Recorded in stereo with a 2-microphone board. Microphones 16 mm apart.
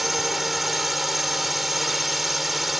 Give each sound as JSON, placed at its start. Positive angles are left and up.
{"t": 0.0, "sound": "a drone", "side_deg": -10}